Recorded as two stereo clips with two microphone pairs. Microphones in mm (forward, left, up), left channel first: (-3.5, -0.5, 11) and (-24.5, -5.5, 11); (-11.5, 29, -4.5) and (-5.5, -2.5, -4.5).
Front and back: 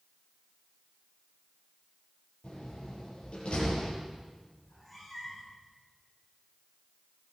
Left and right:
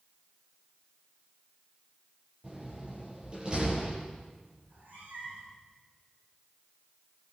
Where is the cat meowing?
75° right, 9.5 m.